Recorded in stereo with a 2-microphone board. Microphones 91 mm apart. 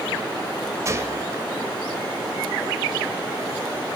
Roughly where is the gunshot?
Right.